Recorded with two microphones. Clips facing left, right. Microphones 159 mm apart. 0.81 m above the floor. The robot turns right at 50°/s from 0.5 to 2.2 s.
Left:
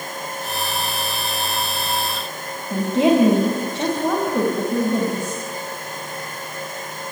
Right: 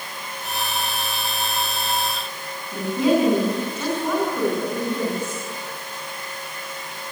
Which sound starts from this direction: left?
A woman speaking, at 2.7 s.